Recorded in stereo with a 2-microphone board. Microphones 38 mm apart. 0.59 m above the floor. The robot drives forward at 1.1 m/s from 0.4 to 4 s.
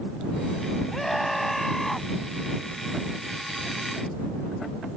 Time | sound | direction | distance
0.9 | a scream | 5° left (ahead or behind) | ?